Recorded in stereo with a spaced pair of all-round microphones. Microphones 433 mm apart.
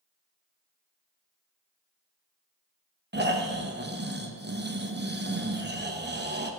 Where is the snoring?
25° right (ahead or behind), 0.8 m.